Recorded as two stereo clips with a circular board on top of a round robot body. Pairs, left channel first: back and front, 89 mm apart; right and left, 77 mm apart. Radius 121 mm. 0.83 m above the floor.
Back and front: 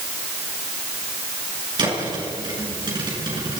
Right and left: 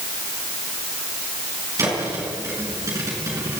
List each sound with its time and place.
1.8 s a thud: 40° left, 6.5 m